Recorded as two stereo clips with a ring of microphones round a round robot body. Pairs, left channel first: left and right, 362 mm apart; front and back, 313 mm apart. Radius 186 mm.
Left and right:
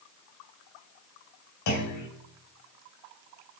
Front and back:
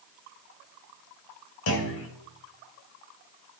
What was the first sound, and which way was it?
A clunk, 45° left.